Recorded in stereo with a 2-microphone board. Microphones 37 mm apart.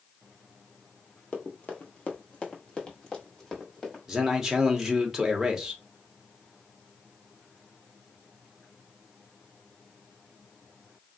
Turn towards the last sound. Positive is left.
turn(degrees=-15)  # may be behind; listen again after turning